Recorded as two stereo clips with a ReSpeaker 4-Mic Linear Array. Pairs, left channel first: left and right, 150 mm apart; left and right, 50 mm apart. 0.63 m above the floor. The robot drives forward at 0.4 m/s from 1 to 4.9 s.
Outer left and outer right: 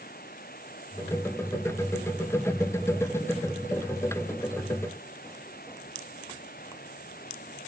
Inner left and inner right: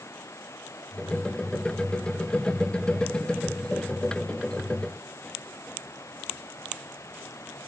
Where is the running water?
85° left.